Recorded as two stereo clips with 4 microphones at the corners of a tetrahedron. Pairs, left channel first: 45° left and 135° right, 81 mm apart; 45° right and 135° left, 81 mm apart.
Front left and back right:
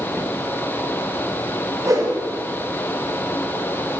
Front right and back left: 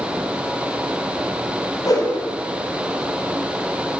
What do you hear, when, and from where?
1.9 s a whoosh: 85° right, 3.5 m